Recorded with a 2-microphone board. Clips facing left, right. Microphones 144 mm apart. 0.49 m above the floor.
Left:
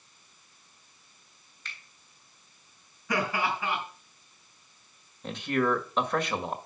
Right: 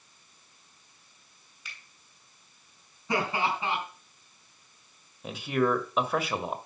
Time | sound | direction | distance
1.6 | a finger snap | 10° right (ahead or behind) | 3 m
3.1 | laughter | 25° right (ahead or behind) | 5 m
5.2 | a man speaking | 5° right (ahead or behind) | 1.5 m